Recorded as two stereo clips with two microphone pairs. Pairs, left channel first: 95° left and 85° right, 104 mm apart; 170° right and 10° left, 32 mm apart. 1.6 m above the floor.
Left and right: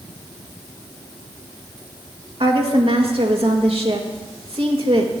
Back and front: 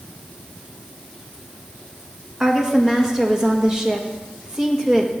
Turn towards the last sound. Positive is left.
turn(degrees=-60)